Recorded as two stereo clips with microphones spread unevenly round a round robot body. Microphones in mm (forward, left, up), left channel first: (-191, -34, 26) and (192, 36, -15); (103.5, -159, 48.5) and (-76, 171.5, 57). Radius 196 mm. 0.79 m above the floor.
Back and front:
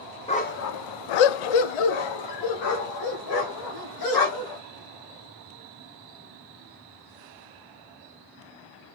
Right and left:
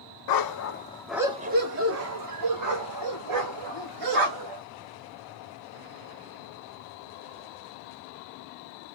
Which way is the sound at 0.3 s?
95° right.